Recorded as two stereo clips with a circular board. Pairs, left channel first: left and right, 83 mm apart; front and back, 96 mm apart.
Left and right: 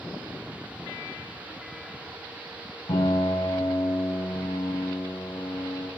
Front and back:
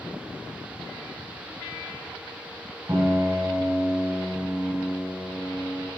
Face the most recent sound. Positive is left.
turn(degrees=120)